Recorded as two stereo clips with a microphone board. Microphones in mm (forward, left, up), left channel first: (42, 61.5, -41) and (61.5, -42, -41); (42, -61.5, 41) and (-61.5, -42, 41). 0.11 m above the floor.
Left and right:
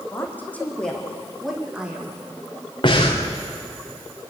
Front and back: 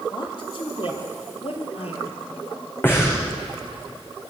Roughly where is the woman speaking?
Ahead left.